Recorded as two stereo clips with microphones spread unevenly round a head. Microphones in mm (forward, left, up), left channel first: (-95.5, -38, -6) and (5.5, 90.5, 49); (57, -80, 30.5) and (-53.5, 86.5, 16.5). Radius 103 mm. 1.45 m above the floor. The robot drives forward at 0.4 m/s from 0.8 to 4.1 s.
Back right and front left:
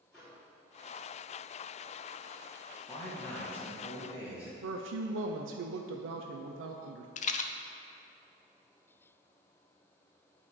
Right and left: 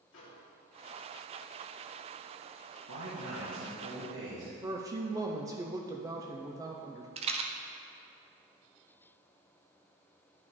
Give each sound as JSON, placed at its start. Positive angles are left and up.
{"t": 0.1, "sound": "a microwave", "azimuth_deg": -25, "distance_m": 2.5}
{"t": 2.9, "sound": "a man speaking", "azimuth_deg": 145, "distance_m": 1.5}
{"t": 4.6, "sound": "a woman speaking", "azimuth_deg": 55, "distance_m": 0.5}
{"t": 7.2, "sound": "a rattle", "azimuth_deg": -175, "distance_m": 0.5}